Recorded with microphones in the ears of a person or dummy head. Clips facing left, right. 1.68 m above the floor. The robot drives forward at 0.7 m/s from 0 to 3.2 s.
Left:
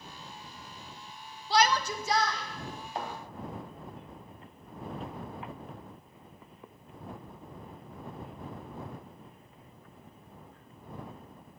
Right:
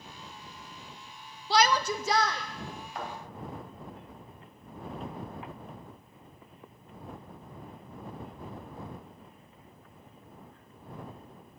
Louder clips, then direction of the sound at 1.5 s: Right 1 dB; 65° right (ahead or behind).